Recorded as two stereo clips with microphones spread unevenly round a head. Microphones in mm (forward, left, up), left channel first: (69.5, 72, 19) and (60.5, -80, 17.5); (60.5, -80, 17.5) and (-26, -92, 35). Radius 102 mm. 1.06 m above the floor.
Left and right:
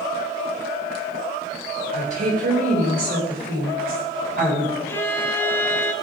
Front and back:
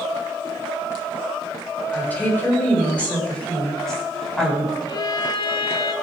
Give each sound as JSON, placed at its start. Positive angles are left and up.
{"t": 1.9, "sound": "a woman speaking", "azimuth_deg": -60, "distance_m": 4.5}
{"t": 4.9, "sound": "a violin", "azimuth_deg": 25, "distance_m": 0.9}